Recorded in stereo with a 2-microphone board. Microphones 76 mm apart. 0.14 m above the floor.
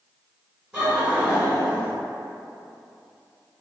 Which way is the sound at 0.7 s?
10° right (ahead or behind).